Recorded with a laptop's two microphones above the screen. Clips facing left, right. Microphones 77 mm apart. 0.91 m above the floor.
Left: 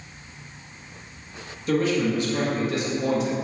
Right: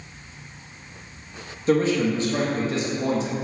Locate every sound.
1.7 s a man speaking: 30° right (ahead or behind), 1.4 m